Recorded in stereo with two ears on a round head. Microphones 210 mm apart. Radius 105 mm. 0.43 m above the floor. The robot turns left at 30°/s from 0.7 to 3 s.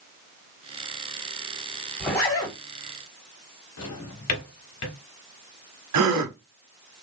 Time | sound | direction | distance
2.0 | a zipper | 10° left (ahead or behind) | 2 m
3.8 | a drawer | 80° left | 0.9 m
5.9 | a gasp | 75° right (ahead or behind) | 0.7 m